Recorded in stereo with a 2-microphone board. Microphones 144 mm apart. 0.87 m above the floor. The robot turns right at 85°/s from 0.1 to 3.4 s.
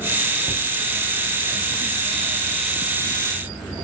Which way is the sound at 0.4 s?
35° right (ahead or behind).